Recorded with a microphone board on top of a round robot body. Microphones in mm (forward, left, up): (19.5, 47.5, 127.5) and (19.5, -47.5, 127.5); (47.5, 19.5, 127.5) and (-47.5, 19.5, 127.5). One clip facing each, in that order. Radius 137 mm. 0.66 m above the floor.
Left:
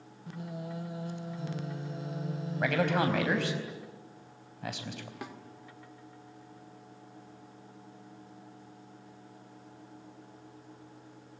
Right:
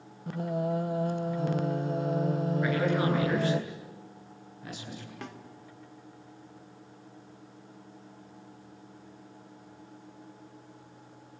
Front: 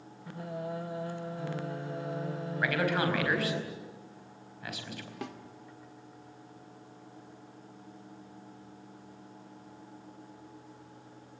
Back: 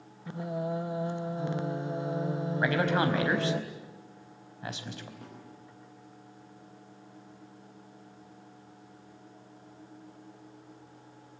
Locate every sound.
0.3 s singing: 115° right, 0.6 m
2.6 s a man speaking: 115° left, 4.5 m
5.2 s a snare drum: 10° left, 2 m